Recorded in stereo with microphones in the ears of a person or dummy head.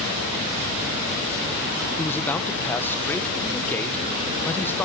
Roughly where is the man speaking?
Centre.